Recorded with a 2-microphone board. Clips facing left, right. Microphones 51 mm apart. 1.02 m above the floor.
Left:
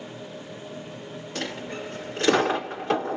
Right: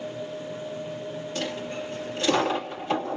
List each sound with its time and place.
1.4 s a dropped coin: 60° left (ahead or behind), 2.0 m